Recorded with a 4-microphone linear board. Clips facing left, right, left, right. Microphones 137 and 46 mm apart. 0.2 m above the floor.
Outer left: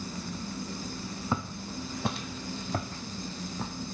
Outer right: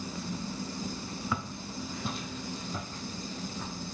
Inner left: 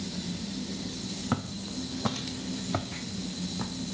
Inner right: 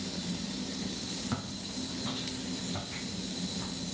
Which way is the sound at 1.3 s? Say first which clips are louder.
Outer left 5 dB, inner left 4 dB; 30° left (ahead or behind).